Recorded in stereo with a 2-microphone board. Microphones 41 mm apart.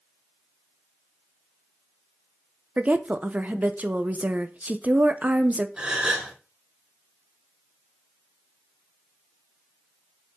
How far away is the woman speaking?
About 0.7 m.